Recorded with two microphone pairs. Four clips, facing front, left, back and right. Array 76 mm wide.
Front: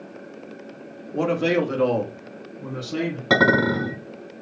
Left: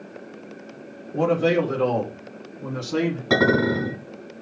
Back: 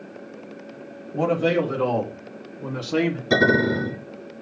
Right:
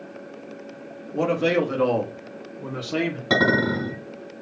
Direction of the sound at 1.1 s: 20° right.